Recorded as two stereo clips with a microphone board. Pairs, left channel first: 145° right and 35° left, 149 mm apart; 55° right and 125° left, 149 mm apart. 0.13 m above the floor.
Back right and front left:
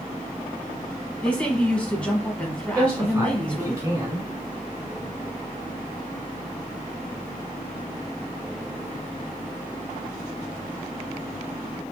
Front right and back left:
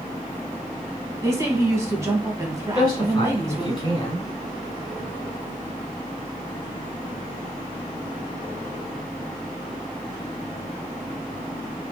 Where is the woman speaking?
145° left, 1.1 m.